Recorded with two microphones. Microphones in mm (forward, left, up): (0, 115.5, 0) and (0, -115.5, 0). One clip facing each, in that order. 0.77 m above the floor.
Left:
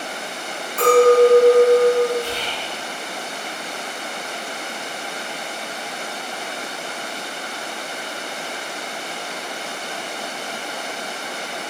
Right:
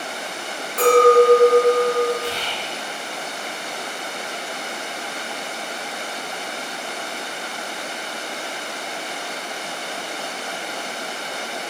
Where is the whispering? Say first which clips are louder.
Even; 40° right (ahead or behind), 1.2 m.